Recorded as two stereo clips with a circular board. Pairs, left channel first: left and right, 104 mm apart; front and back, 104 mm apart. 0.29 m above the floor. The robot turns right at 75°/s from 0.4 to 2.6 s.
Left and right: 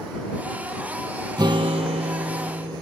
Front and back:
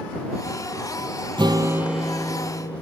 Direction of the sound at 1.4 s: 140° right.